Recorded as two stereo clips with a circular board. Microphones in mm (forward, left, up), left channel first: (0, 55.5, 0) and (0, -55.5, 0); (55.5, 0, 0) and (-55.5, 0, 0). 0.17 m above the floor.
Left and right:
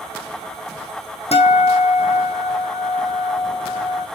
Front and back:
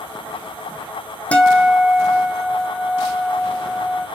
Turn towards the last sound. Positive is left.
turn(degrees=80)